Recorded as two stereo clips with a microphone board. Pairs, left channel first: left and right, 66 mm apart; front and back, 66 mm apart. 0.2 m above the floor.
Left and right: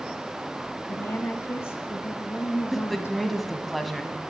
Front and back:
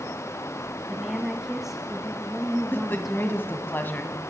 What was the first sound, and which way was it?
A woman speaking, 100° left.